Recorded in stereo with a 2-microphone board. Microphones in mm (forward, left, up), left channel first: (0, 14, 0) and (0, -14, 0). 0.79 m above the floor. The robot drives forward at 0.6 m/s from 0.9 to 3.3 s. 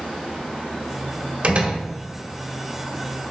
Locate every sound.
1.4 s a door slam: 45° right (ahead or behind), 1.4 m; by 1.8 s 40° right (ahead or behind), 1.5 m